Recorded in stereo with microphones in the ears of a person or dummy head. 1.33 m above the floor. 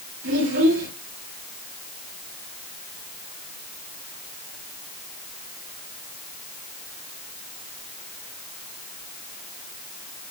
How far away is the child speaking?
About 8.5 m.